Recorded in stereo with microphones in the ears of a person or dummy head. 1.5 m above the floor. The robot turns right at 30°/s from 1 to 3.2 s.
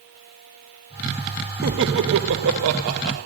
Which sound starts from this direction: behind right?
Laughter, at 1.6 s.